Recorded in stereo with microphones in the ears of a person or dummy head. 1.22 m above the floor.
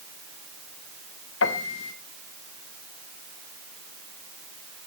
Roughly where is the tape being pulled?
I don't hear tape being pulled.